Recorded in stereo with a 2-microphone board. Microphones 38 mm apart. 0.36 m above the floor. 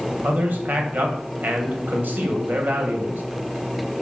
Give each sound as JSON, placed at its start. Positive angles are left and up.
{"t": 0.2, "sound": "a man speaking", "side_deg": -55, "distance_m": 2.0}